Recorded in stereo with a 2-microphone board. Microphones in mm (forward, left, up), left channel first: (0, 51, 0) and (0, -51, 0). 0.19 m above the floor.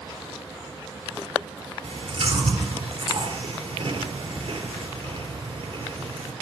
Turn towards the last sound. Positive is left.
turn(degrees=-60)  # may be behind; listen again after turning